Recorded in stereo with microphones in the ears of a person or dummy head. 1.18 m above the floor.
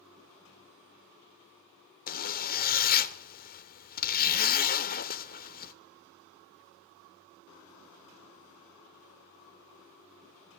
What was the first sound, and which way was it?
A zipper, 45° left (ahead or behind).